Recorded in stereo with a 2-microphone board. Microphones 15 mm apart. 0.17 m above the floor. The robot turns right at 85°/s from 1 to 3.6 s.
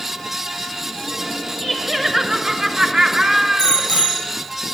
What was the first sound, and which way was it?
Laughter, 135° left.